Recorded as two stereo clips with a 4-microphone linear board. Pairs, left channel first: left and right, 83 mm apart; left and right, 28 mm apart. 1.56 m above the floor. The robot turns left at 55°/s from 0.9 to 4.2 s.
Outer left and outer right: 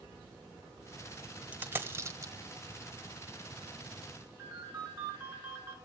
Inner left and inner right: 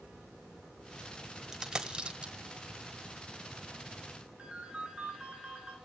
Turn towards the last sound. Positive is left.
turn(degrees=-30)  # may be behind; listen again after turning